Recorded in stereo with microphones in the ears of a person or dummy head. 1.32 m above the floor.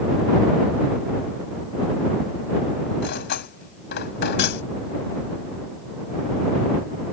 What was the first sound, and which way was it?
Cutlery clinking, 55° left (ahead or behind).